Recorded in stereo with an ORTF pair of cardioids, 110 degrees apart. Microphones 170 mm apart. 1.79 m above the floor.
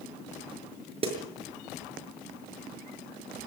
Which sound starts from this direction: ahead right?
A snare drum, at 1.0 s.